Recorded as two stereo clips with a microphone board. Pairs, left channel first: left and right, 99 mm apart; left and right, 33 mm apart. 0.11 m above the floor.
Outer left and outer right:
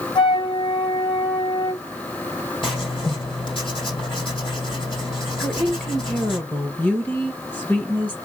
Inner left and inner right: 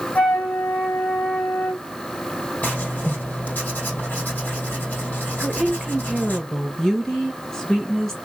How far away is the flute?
About 3 m.